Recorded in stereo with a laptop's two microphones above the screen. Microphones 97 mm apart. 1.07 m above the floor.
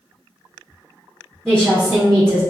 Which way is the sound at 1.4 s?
5° left (ahead or behind).